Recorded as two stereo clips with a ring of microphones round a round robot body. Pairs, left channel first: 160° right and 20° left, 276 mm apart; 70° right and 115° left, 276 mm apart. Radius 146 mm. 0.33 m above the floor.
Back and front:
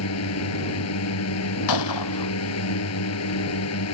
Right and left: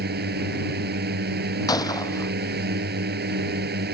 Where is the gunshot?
145° right.